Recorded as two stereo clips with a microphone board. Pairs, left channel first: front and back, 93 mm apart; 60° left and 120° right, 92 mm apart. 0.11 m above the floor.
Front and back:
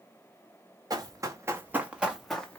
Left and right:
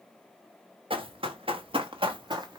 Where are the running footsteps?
130° right, 1.0 m; by 2.6 s 75° right, 0.7 m.